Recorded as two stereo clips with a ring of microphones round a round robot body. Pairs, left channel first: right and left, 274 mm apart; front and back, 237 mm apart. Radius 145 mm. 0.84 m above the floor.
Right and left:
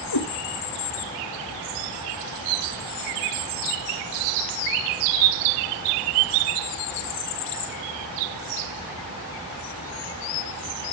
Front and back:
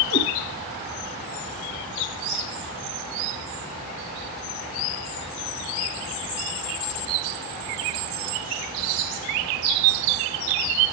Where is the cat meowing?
55° right, 2.5 m.